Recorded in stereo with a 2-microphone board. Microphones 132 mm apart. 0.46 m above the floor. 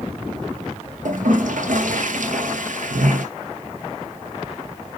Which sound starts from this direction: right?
A toilet flushing, at 1.1 s.